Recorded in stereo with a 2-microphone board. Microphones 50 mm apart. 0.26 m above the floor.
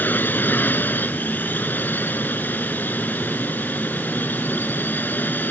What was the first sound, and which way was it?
A drone, 40° left (ahead or behind).